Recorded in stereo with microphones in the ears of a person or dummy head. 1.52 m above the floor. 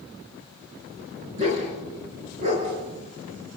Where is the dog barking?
35° right (ahead or behind), 5.5 m.